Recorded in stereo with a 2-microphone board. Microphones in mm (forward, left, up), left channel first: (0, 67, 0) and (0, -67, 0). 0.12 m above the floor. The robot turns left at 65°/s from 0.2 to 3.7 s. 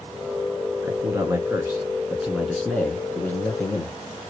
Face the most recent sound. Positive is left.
turn(degrees=20)  # may be behind; listen again after turning